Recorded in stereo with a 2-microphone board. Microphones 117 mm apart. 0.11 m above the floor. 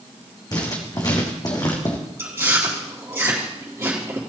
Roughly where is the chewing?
Right.